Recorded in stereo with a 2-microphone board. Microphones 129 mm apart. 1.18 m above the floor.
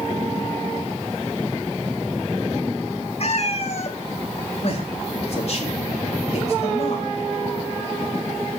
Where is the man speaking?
55° left (ahead or behind), 3.5 m.